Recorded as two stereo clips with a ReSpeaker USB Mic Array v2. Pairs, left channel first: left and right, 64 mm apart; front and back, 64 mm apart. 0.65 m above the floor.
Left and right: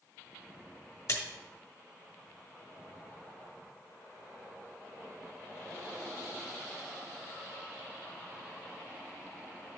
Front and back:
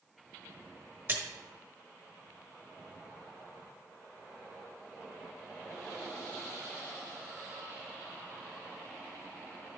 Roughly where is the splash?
Behind left.